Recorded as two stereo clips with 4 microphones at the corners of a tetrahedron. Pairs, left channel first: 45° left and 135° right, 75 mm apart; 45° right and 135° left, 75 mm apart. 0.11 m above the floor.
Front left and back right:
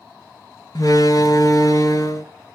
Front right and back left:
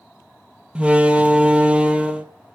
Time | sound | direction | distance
0.8 | a door slam | 65° left | 1.5 m